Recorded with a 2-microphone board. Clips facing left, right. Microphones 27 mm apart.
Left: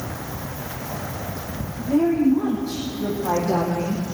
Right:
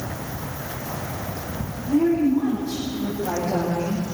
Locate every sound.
1.8 s a woman speaking: 75° left (ahead or behind), 7 m; by 4.0 s 70° left (ahead or behind), 4 m